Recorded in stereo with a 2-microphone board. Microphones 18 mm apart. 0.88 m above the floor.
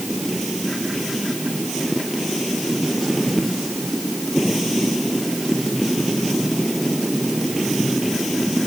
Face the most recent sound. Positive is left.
No sound to turn to.